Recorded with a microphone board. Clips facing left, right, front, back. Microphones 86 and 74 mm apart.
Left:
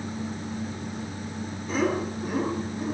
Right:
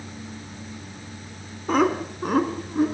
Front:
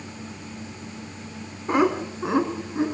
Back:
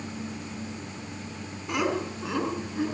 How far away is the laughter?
About 4 m.